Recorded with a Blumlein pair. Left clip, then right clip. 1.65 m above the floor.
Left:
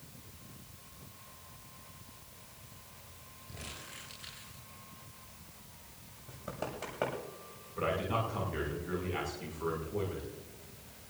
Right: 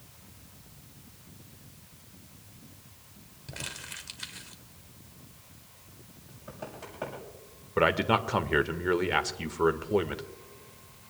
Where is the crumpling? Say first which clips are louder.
Right 8 dB; 50° right, 3 m.